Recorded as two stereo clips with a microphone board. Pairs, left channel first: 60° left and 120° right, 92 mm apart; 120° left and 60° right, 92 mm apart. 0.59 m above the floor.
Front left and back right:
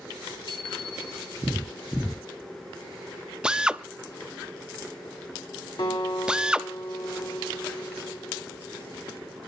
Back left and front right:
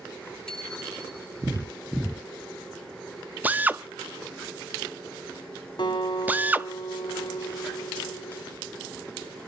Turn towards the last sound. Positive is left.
turn(degrees=85)